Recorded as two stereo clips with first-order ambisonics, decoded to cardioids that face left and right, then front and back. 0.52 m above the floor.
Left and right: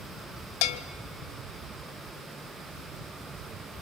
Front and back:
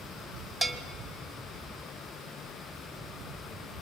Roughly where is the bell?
Left.